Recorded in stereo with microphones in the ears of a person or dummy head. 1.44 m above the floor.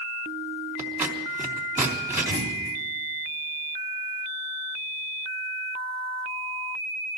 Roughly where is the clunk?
Left.